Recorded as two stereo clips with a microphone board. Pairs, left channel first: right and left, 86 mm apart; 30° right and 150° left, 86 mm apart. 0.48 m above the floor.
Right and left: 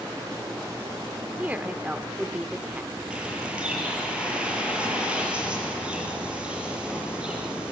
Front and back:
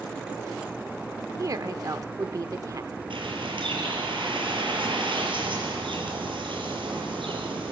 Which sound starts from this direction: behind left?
A woman speaking, at 1.4 s.